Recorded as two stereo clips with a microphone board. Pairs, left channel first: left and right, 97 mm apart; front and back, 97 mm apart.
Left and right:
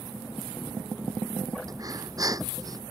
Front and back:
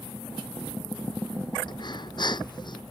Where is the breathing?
40° right.